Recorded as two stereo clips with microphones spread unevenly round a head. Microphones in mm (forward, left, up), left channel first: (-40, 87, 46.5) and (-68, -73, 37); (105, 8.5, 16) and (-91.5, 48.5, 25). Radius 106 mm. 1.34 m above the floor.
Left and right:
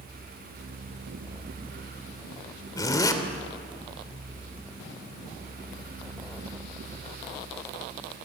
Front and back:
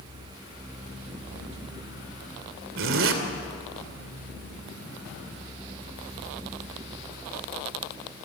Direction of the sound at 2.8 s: 145° left.